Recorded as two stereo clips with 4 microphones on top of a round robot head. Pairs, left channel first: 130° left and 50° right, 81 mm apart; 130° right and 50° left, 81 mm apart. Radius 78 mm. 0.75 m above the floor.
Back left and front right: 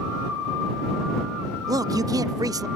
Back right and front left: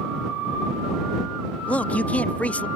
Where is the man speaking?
65° right.